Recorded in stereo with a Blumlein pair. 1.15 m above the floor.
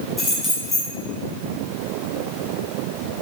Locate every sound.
0.2 s keys jangling: 5° left, 1.6 m